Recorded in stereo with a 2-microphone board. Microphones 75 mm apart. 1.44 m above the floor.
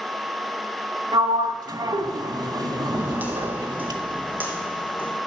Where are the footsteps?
25° right (ahead or behind), 3 m.